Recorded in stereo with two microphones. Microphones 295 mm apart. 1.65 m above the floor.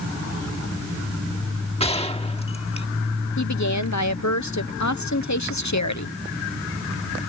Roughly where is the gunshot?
Centre.